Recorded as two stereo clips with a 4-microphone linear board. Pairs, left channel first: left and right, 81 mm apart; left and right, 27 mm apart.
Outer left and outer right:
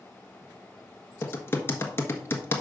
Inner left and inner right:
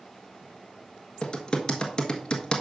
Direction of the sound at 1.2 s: 30° left (ahead or behind).